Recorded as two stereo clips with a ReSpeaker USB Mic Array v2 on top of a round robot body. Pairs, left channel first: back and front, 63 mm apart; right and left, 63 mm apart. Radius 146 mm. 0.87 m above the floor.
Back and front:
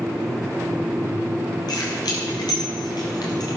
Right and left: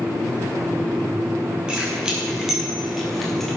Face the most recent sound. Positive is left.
turn(degrees=-170)